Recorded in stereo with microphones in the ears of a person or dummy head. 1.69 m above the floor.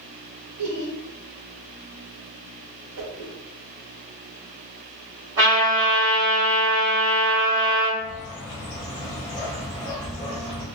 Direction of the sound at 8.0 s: 20° left (ahead or behind).